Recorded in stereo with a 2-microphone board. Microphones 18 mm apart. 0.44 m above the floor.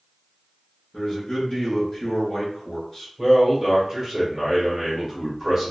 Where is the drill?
No drill in this recording.